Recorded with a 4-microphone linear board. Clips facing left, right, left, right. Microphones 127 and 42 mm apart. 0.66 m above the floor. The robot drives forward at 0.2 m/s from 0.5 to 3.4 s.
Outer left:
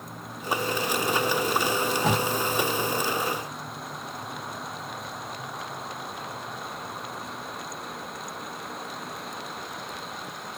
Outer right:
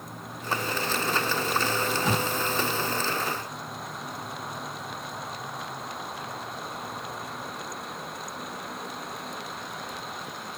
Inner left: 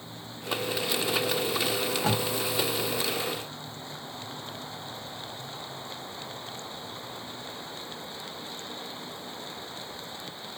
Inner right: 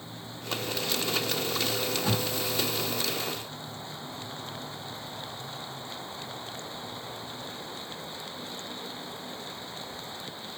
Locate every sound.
1.7 s tape being pulled: 65° left (ahead or behind), 1.0 m